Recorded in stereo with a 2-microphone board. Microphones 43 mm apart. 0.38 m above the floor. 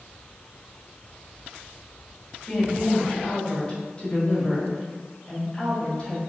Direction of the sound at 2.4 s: 25° left (ahead or behind).